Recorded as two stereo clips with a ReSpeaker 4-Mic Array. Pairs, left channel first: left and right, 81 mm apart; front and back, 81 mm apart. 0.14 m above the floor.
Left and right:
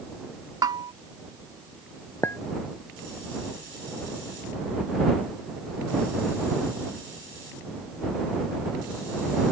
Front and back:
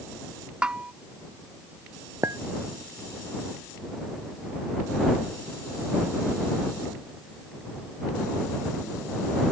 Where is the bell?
105° right.